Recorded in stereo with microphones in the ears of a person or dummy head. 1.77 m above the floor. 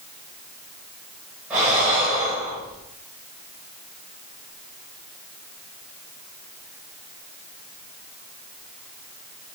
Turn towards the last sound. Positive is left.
turn(degrees=-15)  # may be behind; listen again after turning